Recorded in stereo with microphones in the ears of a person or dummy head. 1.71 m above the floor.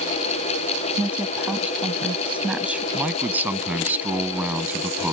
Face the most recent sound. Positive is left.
turn(degrees=-5)  # may be behind; listen again after turning